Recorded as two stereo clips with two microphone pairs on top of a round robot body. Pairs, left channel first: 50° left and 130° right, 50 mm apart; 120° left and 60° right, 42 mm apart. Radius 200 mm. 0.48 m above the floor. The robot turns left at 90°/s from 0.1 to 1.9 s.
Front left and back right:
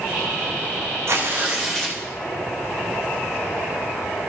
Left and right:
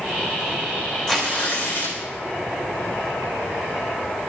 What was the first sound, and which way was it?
Tearing paper, 160° right.